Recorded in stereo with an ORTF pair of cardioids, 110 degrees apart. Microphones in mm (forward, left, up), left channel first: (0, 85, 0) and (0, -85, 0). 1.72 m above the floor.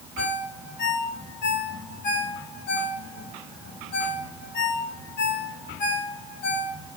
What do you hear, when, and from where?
0.2 s a ringtone: 65° left, 3.5 m